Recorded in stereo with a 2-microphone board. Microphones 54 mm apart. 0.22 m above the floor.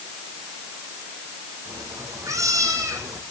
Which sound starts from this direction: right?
A cat meowing, at 1.6 s.